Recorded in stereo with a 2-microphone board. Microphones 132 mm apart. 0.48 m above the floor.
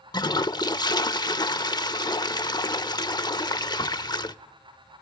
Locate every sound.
0.1 s a toilet flushing: 30° left (ahead or behind), 0.5 m